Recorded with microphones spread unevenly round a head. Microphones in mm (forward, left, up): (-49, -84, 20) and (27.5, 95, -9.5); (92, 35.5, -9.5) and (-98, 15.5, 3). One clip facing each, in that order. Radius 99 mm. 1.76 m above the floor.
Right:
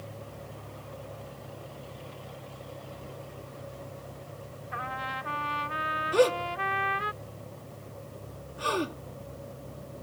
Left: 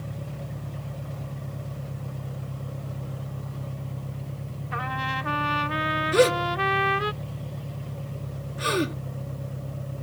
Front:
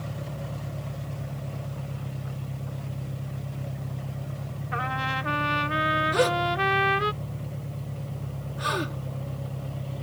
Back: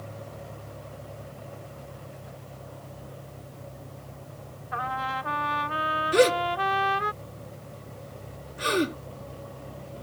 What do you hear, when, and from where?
0.0 s an engine running: 40° left
4.7 s a trumpet: 55° left
6.1 s a gasp: 130° left